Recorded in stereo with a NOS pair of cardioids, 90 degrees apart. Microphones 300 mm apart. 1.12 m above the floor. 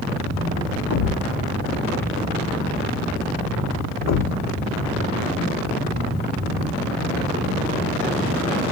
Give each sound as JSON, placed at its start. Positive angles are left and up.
{"t": 0.9, "sound": "a thud", "azimuth_deg": 60, "distance_m": 1.3}